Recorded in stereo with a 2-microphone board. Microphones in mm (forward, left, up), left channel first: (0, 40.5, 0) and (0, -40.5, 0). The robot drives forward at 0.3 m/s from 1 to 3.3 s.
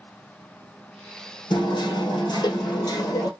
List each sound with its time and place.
1.5 s hammering: 65° left (ahead or behind), 1.0 m; by 3.3 s 50° left (ahead or behind), 1.2 m